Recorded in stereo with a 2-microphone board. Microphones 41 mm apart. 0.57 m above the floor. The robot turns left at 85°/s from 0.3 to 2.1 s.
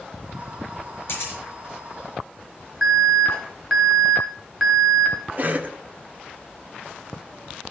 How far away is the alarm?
About 2.5 m.